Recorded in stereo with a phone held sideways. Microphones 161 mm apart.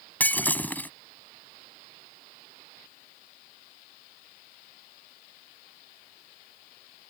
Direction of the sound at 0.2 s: 10° left (ahead or behind).